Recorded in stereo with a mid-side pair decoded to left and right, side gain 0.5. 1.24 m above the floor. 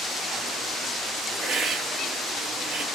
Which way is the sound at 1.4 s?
50° right.